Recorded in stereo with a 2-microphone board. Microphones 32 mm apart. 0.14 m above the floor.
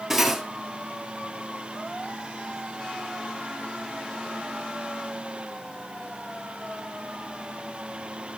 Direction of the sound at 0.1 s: 10° right (ahead or behind).